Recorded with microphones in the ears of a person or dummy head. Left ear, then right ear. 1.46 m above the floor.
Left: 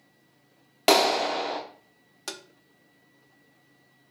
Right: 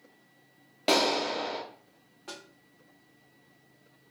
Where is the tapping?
70° left (ahead or behind), 0.5 m.